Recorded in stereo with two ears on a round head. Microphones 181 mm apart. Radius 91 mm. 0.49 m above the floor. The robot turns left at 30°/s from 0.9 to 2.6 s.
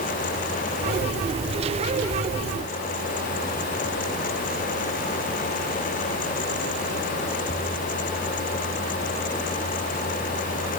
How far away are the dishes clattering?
No dishes clattering in this recording.